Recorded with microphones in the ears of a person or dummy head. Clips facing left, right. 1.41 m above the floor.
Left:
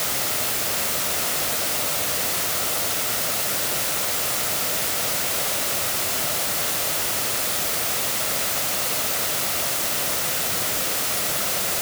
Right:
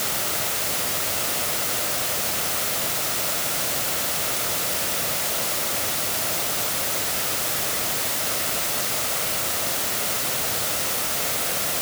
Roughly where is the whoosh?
I don't hear a whoosh.